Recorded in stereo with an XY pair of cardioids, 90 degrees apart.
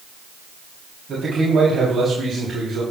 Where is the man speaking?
40° right, 3.5 m.